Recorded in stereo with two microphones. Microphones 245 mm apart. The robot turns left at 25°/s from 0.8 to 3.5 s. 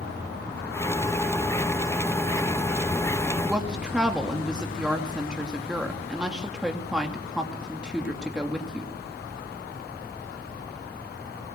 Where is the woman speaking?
5° right (ahead or behind), 2.5 m.